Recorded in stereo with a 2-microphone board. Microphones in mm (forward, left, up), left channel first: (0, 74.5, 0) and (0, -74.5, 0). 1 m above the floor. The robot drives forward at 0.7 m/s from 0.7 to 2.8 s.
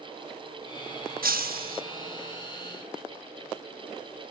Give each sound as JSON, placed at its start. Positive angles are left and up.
{"t": 1.2, "sound": "breaking glass", "side_deg": -75, "distance_m": 1.0}